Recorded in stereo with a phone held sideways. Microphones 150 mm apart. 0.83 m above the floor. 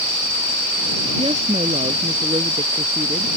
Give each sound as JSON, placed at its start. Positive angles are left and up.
{"t": 1.2, "sound": "a woman speaking", "side_deg": -40}